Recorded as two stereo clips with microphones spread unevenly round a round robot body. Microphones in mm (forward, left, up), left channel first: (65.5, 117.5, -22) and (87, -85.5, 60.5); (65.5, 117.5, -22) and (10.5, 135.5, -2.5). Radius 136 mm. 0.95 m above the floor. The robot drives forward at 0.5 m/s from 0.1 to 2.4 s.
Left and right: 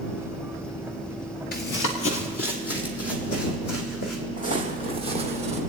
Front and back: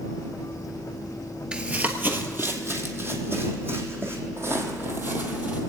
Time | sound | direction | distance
1.5 | running footsteps | 155° left | 1.1 m
4.4 | footsteps | 165° left | 2 m